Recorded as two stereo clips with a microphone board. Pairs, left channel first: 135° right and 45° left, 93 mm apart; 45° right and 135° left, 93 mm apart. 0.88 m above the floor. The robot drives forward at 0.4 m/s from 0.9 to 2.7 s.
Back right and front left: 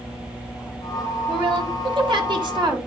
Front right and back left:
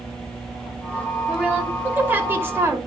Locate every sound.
1.3 s a woman speaking: 60° left, 2.5 m; by 2.8 s 75° left, 2.5 m